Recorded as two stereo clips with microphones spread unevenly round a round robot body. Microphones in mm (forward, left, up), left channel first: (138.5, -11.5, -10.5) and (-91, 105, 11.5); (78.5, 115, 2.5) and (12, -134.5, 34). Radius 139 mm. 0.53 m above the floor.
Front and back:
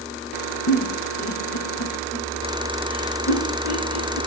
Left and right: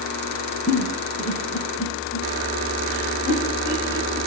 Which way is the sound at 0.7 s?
15° right.